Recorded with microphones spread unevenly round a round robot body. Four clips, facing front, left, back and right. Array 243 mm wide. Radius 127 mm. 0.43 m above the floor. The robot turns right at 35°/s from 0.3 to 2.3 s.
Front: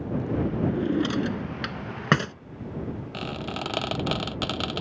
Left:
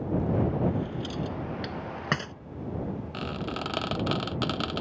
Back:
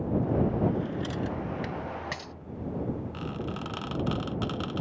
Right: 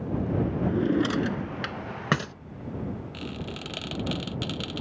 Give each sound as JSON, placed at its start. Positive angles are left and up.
{"t": 0.6, "sound": "a drawer", "azimuth_deg": -65}
{"t": 3.1, "sound": "a squeak", "azimuth_deg": 35}